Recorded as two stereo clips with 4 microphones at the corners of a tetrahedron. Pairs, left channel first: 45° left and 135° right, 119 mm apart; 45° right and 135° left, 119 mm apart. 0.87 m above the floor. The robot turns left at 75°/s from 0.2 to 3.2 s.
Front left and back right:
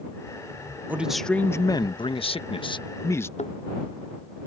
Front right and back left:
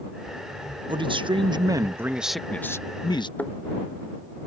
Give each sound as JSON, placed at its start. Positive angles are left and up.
{"t": 0.9, "sound": "a man speaking", "azimuth_deg": 155}
{"t": 3.4, "sound": "a thud", "azimuth_deg": 30}